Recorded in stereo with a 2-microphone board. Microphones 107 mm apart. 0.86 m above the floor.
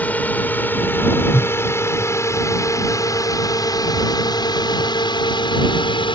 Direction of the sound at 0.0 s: 15° left (ahead or behind).